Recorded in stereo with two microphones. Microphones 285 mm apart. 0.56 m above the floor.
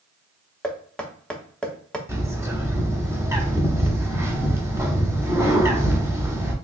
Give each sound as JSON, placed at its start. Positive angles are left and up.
{"t": 0.6, "sound": "knocking", "side_deg": 5, "distance_m": 0.6}
{"t": 2.1, "sound": "a bird", "side_deg": -10, "distance_m": 0.9}